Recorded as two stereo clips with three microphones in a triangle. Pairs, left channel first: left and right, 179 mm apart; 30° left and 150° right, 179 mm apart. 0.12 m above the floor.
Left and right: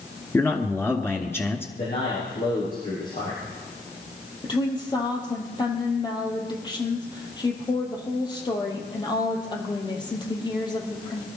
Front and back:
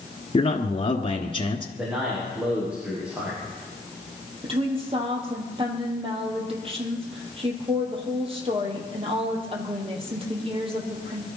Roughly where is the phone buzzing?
I don't hear a phone buzzing.